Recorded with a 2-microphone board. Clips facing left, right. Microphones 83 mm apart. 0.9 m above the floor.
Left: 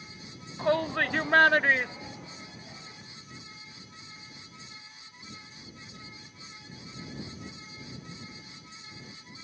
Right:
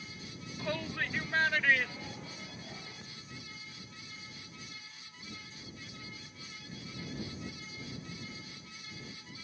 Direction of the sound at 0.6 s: 50° left (ahead or behind).